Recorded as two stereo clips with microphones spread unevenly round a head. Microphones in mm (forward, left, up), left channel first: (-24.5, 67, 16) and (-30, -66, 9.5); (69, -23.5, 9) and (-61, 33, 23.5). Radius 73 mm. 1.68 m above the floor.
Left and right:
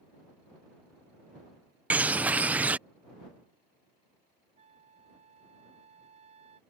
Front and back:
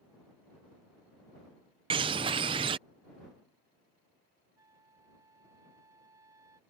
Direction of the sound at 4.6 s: 135° right.